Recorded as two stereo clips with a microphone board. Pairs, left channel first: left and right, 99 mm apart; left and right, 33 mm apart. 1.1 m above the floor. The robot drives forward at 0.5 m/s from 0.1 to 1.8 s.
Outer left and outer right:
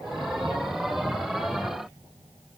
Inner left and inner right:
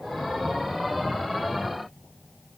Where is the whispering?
No whispering in this recording.